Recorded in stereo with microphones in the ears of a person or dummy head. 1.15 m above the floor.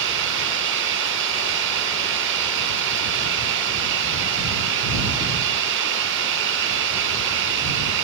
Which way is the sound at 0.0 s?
70° right (ahead or behind).